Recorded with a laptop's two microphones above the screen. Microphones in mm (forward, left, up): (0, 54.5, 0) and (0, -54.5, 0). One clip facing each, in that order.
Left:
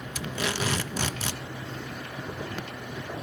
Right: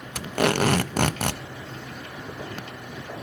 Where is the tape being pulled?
60° right (ahead or behind), 0.5 m.